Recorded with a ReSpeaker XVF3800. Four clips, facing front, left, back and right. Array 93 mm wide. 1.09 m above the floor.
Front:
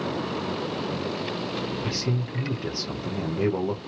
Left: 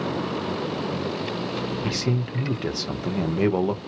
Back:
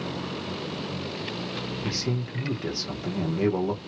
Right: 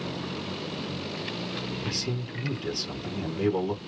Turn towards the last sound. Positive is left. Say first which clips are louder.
# left 7 dB, front 1 dB
turn(degrees=90)